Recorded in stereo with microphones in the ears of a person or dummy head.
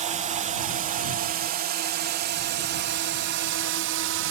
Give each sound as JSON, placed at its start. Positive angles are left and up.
{"t": 0.0, "sound": "a drone", "side_deg": -35}